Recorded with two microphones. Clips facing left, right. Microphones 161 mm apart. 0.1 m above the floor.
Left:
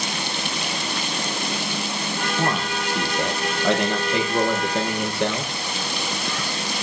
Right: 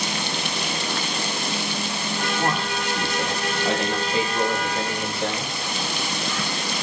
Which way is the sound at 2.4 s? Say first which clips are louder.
Left 2 dB; 65° left (ahead or behind).